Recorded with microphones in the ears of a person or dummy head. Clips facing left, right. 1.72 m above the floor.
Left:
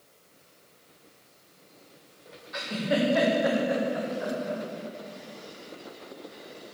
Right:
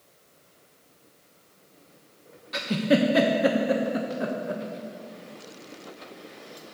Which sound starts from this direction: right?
A giggle, at 2.5 s.